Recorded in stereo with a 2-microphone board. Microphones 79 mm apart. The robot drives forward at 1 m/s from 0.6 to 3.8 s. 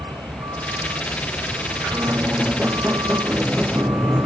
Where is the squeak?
20° right (ahead or behind); by 4.2 s 15° right (ahead or behind).